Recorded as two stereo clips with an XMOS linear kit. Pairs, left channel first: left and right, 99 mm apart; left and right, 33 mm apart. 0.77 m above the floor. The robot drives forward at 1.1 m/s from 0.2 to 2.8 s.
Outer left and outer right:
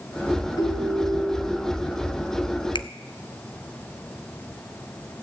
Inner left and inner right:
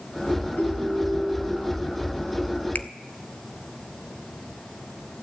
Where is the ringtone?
45° left (ahead or behind), 3 m; by 1.6 s 35° left (ahead or behind), 4 m.